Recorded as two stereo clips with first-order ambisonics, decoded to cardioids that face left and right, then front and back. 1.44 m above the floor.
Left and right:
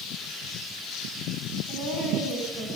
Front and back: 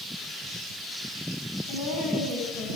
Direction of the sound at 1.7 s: 25° right.